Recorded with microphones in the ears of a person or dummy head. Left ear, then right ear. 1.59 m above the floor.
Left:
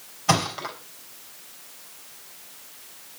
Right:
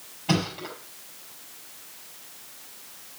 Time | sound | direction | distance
0.3 | a thud | 60° left (ahead or behind) | 4.5 m